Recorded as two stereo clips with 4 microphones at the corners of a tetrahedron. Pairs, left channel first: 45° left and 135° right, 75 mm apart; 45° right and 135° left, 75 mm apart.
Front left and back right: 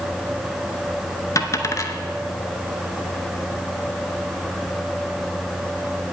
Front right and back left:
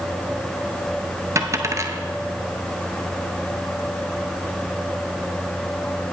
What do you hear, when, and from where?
1.4 s a dropped coin: 85° left, 0.7 m